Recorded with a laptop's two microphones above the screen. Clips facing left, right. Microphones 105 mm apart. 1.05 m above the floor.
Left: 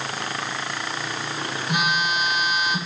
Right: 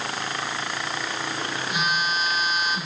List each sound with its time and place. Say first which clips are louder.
1.7 s a phone buzzing: left 3 dB; 65° left (ahead or behind), 2.5 m